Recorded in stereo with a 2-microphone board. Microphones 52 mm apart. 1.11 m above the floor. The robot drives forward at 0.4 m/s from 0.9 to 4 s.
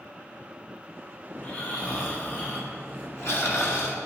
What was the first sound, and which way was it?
Snoring, 35° left (ahead or behind).